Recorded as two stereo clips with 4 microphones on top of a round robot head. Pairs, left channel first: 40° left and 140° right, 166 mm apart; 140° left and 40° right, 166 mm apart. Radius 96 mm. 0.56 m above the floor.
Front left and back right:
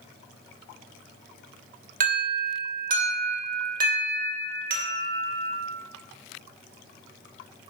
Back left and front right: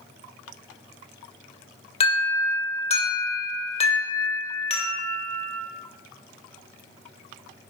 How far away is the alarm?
About 2.5 m.